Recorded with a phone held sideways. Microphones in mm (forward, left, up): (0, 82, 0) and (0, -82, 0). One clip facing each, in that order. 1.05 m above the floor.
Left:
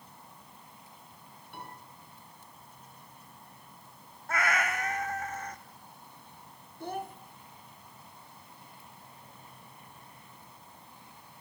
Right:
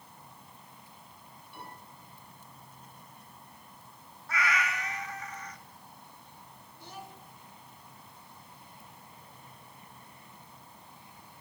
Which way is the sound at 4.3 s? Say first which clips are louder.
Left 2 dB; 50° left (ahead or behind).